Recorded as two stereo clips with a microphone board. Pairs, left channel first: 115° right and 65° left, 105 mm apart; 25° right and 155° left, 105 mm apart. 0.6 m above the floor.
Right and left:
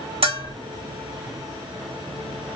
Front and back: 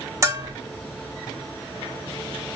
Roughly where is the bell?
Left.